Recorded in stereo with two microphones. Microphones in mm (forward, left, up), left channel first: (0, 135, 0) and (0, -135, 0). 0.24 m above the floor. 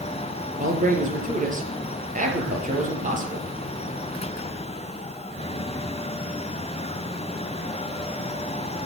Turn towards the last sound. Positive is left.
turn(degrees=-30)  # may be behind; listen again after turning